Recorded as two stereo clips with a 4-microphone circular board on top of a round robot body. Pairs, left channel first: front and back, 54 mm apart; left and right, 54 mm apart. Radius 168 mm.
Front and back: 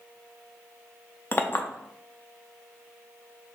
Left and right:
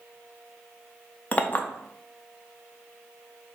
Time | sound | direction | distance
1.3 | a clink | 35° left | 0.8 m